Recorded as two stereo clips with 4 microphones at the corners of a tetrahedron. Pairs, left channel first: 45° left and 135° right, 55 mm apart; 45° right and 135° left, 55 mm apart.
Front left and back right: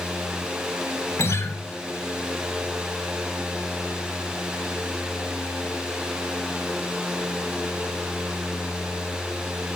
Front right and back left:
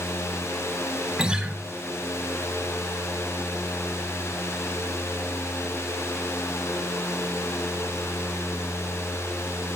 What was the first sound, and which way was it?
A guitar, 65° left.